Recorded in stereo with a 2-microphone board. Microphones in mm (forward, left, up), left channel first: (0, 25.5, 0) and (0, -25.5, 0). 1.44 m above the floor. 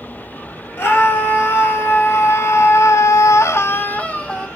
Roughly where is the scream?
Left.